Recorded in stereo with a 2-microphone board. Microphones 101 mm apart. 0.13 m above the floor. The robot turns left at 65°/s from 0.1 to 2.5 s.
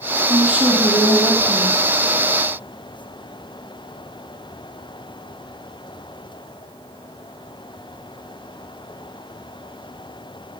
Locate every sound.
0.3 s a woman speaking: 150° right, 5 m; by 1.8 s 110° left, 5 m